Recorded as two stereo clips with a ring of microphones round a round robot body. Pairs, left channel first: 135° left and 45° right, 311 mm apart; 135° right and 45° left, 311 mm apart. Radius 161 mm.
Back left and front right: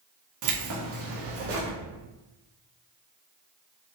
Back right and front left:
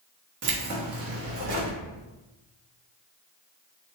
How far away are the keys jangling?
About 1.1 m.